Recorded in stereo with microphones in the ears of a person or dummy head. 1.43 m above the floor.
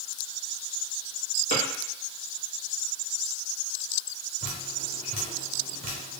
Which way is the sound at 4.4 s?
35° right (ahead or behind).